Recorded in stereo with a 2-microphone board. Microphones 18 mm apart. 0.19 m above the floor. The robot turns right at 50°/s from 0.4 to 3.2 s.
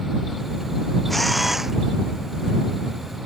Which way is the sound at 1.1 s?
170° left.